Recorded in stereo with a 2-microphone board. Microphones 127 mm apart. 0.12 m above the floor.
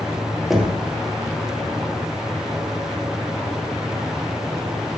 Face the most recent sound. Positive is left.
turn(degrees=-5)  # may be behind; listen again after turning